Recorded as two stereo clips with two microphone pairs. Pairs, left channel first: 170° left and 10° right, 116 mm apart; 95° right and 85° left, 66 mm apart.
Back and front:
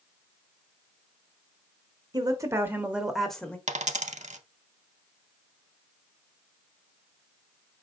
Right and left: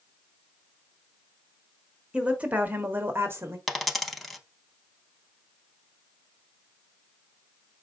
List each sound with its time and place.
2.1 s a woman speaking: 25° left, 1.1 m; by 3.6 s 95° left, 1.1 m
3.7 s a dropped coin: 5° right, 0.6 m